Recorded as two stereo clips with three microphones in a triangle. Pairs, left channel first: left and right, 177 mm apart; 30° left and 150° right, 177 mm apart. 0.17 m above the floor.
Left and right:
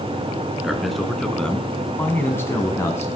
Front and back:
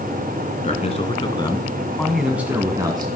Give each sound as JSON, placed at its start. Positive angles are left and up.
{"t": 0.6, "sound": "a man speaking", "azimuth_deg": 0, "distance_m": 1.7}